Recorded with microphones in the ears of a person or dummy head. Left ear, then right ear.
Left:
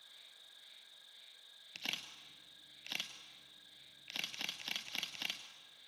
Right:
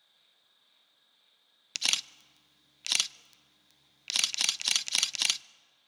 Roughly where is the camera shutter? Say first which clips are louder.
Right 13 dB; right.